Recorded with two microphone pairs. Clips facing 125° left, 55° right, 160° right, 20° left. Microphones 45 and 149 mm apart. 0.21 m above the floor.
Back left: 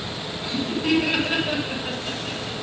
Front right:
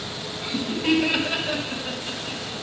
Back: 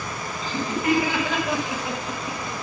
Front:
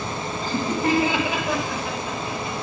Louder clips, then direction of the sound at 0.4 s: Even, front 1 dB; 15° left.